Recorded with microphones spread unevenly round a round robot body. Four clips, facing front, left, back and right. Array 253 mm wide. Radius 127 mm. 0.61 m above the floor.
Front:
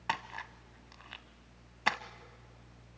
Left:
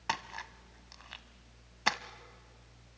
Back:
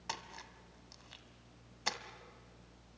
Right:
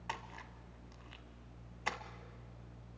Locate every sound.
0.1 s a splash: 60° left, 1.3 m